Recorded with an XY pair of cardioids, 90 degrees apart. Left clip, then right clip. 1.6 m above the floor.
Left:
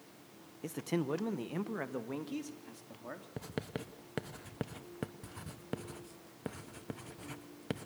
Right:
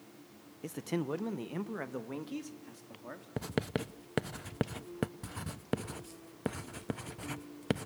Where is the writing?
55° right, 0.9 m.